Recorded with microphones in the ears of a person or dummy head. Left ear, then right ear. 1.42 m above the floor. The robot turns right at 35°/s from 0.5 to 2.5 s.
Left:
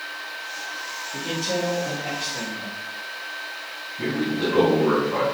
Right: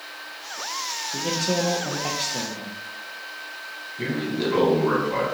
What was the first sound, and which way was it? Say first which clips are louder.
A man speaking: right 1 dB; 115° right.